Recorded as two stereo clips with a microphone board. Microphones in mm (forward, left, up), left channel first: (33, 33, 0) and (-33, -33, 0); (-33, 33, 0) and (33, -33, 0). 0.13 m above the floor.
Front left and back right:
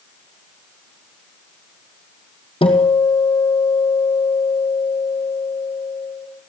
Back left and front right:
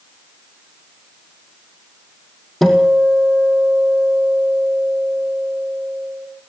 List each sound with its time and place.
2.6 s a guitar: 45° left, 2.5 m